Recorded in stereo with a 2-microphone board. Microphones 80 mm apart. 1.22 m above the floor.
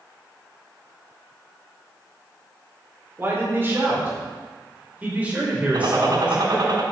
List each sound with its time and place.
3.2 s a man speaking: 30° right (ahead or behind), 4 m; by 6.7 s 15° right (ahead or behind), 5.5 m
5.7 s a gunshot: 65° right (ahead or behind), 2.5 m